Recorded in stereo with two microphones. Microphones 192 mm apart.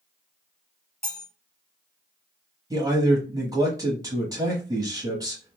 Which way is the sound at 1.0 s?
50° left (ahead or behind).